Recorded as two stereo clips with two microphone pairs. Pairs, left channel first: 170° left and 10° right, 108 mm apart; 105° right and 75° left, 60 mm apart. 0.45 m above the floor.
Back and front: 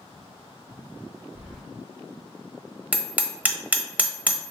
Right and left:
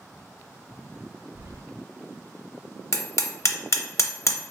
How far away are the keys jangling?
About 1.4 m.